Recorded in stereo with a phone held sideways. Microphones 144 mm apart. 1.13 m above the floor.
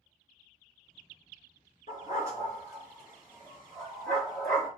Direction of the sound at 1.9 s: 55° left (ahead or behind).